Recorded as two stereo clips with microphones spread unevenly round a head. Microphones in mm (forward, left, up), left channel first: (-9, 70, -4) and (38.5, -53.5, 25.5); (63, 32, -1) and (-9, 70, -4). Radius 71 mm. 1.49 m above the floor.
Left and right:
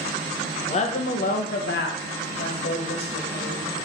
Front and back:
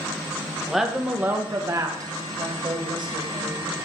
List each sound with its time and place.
0.7 s a woman speaking: 60° left, 1.1 m; by 3.9 s 135° left, 2 m